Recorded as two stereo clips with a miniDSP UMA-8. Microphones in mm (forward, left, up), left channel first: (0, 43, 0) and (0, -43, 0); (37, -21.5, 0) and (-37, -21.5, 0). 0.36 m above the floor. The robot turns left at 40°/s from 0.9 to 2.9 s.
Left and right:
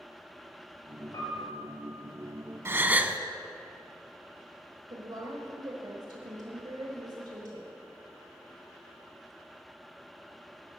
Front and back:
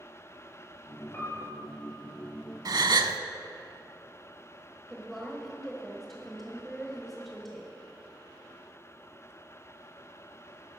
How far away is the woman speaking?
About 1.3 m.